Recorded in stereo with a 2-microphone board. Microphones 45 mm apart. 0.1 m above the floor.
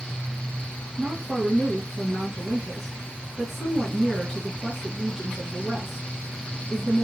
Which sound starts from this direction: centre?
A woman speaking, at 1.0 s.